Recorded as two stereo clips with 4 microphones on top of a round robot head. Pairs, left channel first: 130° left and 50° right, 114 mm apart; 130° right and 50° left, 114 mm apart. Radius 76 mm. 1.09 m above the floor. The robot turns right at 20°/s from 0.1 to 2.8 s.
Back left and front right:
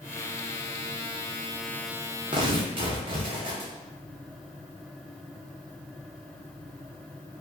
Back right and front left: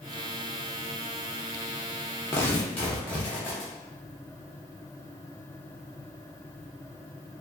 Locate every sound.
2.3 s tearing paper: 75° right, 0.6 m; by 3.7 s 65° right, 0.6 m